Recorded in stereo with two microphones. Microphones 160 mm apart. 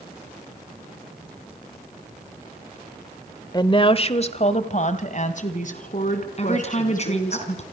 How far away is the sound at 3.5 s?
About 1.0 m.